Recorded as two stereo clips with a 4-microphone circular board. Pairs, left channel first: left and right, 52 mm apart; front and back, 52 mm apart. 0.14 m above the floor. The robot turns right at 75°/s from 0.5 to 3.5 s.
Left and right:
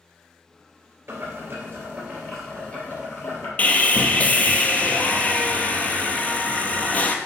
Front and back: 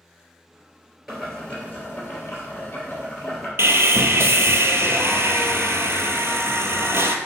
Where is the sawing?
150° left, 0.8 m.